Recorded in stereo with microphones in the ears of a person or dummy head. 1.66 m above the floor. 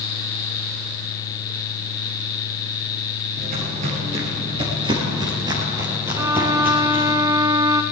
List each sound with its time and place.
3.4 s footsteps: 40° right (ahead or behind), 2 m; by 7.2 s 5° right (ahead or behind), 3 m
6.2 s a violin: 25° right (ahead or behind), 0.9 m